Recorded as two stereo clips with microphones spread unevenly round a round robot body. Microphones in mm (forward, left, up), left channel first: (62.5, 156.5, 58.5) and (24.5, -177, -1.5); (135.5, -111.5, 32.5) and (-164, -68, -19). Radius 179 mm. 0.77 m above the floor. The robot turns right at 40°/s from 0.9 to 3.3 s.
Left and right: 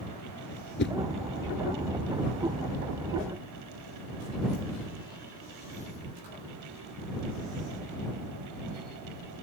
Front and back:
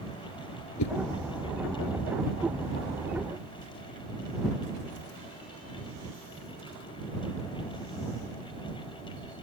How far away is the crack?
No crack in this recording.